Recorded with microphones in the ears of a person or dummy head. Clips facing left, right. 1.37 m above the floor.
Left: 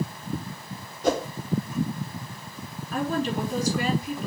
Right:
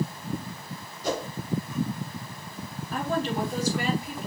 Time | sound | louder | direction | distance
1.0 | a whoosh | left 5 dB | 50° left (ahead or behind) | 0.7 m
2.9 | a woman speaking | left 2 dB | 40° left (ahead or behind) | 3.5 m